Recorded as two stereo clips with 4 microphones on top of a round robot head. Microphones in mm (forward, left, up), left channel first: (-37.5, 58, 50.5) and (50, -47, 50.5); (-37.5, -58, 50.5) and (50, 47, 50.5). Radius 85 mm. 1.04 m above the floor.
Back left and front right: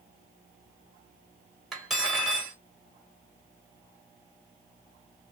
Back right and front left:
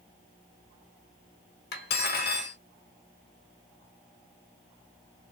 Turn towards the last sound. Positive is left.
turn(degrees=-140)